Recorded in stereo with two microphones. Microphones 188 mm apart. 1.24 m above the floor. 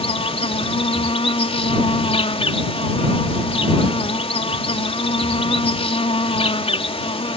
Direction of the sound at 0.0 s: 30° left (ahead or behind).